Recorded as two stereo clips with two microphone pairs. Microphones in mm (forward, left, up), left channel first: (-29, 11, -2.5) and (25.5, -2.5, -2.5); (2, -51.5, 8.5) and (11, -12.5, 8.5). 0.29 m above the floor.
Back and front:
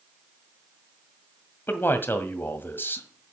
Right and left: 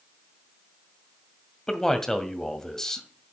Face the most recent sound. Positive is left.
turn(degrees=-170)